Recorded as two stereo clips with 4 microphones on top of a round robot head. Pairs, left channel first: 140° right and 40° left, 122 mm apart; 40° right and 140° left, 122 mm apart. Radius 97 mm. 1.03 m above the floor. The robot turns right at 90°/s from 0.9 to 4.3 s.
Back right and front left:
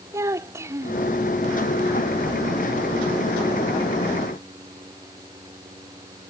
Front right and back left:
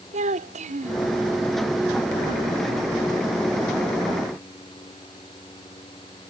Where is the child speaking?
110° left; by 1.1 s 125° left.